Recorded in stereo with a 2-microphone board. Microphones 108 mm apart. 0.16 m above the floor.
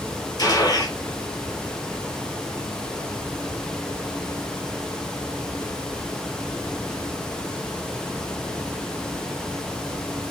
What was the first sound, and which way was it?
A gunshot, 35° left (ahead or behind).